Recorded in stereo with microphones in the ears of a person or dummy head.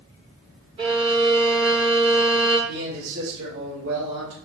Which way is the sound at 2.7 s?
60° right (ahead or behind).